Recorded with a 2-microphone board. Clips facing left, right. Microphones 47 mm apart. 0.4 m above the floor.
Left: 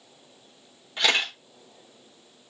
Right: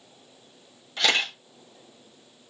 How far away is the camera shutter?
About 3.5 m.